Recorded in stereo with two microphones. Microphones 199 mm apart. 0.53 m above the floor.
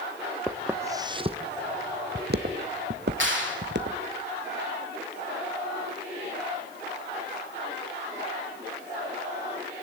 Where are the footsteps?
5° right (ahead or behind), 0.9 m; by 4.0 s 60° right (ahead or behind), 1.5 m.